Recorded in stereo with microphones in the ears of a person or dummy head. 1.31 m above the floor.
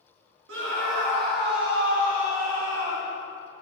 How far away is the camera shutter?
No camera shutter in this recording.